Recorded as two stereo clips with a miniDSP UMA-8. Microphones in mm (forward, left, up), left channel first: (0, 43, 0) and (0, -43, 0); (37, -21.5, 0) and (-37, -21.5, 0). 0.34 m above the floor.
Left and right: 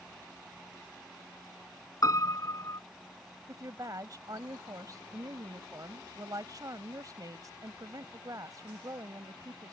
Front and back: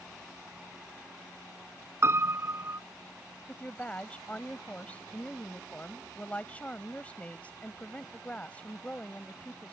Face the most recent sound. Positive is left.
turn(degrees=-65)